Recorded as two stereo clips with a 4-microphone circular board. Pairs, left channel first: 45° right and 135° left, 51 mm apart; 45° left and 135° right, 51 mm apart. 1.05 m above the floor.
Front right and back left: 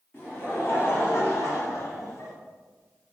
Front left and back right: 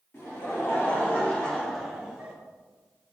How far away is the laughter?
About 1.5 m.